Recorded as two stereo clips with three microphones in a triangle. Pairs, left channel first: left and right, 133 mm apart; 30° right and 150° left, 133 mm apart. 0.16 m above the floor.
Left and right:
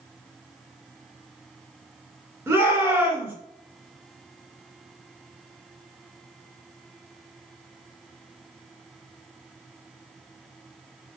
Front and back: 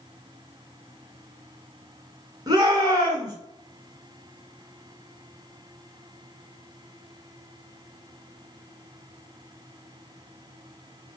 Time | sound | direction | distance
2.5 | a shout | 155° right | 2.0 m